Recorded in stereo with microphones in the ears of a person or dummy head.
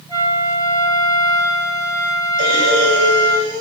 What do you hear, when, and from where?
0.1 s a flute: 20° right (ahead or behind), 2.5 m
2.4 s breathing: 75° right (ahead or behind), 6.5 m